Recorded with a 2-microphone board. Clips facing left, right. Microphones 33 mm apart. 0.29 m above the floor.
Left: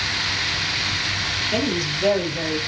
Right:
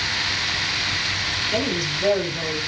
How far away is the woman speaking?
About 5.5 m.